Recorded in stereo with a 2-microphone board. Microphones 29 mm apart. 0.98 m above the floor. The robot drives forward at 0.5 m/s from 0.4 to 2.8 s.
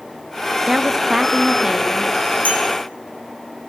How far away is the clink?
About 4.5 m.